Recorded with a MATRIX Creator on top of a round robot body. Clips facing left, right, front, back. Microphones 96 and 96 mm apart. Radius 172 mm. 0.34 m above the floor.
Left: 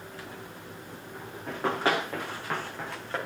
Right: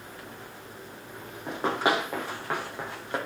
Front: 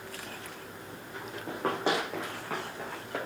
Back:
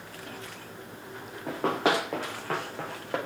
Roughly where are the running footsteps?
Behind.